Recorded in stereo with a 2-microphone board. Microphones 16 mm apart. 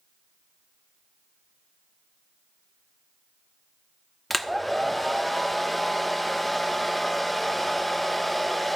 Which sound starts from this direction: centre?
A hair dryer, at 4.3 s.